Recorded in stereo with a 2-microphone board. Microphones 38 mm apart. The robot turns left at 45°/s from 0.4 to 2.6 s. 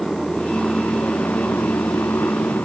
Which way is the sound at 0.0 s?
10° left (ahead or behind).